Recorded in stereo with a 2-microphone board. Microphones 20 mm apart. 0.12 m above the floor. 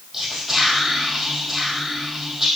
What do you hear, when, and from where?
0.1 s whispering: 10° right (ahead or behind), 3.5 m